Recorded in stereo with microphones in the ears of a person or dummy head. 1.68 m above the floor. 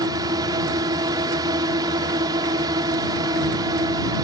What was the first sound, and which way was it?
A drone, 20° right (ahead or behind).